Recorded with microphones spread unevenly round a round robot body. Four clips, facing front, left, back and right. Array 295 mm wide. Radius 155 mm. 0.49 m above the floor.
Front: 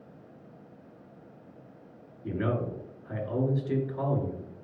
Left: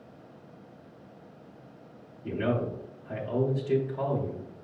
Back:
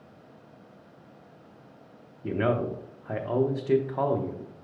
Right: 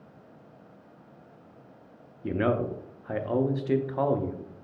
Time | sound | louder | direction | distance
2.2 | a man speaking | right 3 dB, back 4 dB | 135° right | 0.8 m